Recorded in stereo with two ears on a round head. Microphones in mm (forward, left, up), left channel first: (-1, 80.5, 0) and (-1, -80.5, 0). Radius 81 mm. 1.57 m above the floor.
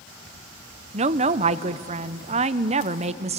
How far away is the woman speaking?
About 0.7 m.